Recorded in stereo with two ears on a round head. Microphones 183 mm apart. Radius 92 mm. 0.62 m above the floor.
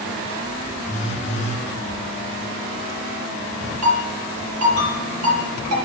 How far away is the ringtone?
About 6.5 m.